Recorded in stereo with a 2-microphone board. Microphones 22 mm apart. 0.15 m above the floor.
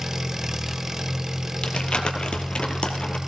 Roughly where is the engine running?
Right.